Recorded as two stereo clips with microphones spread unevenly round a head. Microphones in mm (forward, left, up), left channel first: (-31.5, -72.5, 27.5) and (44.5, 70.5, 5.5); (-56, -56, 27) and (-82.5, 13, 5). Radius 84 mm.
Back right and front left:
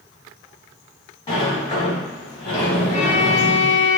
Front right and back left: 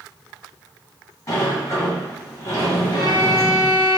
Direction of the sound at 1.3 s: 70° right.